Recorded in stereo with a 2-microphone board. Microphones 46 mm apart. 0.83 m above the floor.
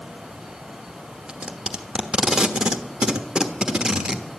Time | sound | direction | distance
1.3 | tape being pulled | 15° right (ahead or behind) | 1.1 m